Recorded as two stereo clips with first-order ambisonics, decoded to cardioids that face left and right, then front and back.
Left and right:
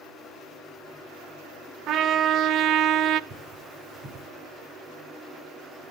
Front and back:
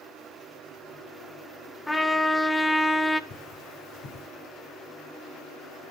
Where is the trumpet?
85° right, 0.6 m.